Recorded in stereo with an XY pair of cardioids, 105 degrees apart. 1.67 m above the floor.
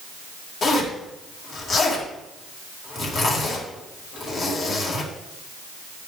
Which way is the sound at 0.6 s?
45° left.